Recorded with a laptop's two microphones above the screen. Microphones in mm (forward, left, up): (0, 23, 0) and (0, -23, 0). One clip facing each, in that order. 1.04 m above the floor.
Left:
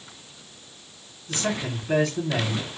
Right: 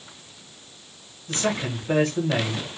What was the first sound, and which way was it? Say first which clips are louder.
A man speaking: right 2 dB; 45° right (ahead or behind).